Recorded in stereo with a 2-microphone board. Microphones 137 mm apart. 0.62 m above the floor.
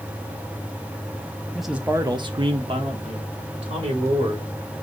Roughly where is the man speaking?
Centre.